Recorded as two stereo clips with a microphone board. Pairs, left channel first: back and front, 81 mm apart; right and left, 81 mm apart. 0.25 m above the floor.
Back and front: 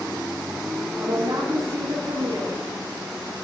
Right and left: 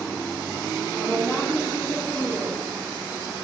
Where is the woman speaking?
15° left, 4.5 m.